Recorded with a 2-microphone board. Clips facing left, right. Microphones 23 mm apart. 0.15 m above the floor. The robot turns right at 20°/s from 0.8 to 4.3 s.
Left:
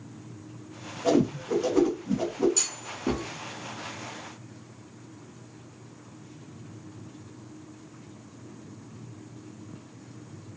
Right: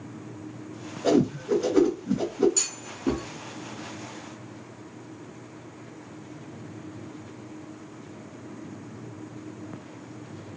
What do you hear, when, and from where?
1.0 s a whoosh: 45° right (ahead or behind), 2 m; by 2.5 s 50° right (ahead or behind), 2 m
2.6 s a clunk: centre (ahead or behind), 0.8 m; by 3.2 s 10° right (ahead or behind), 0.8 m